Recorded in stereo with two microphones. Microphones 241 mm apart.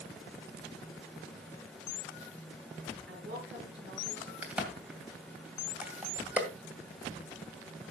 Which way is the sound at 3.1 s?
50° right (ahead or behind).